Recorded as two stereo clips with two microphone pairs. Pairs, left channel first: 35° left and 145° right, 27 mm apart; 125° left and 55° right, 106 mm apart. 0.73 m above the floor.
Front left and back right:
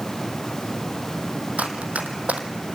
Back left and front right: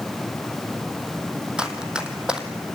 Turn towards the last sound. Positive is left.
turn(degrees=-135)